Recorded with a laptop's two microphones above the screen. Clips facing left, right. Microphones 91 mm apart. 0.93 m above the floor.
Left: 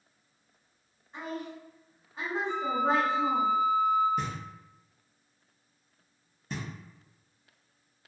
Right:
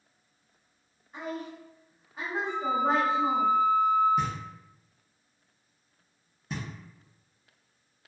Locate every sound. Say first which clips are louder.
1.1 s a woman speaking: right 1 dB; centre (ahead or behind), 0.8 m
2.5 s a flute: right 1 dB; 60° right (ahead or behind), 1.0 m
4.2 s knocking: right 4 dB; centre (ahead or behind), 0.8 m